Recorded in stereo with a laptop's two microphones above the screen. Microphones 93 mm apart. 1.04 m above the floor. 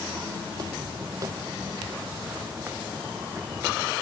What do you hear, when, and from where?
0.5 s footsteps: 45° right (ahead or behind), 2 m; by 3.9 s 20° right (ahead or behind), 3.5 m